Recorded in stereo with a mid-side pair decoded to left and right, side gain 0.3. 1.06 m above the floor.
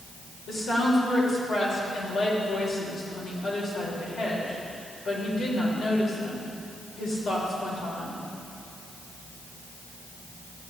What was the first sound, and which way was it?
A woman speaking, 70° left.